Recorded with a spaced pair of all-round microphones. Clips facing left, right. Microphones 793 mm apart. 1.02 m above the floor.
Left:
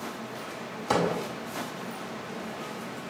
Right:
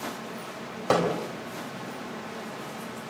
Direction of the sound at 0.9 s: 70° right (ahead or behind).